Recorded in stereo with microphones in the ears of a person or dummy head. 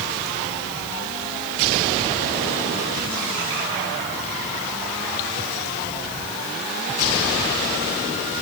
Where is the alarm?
I don't hear an alarm.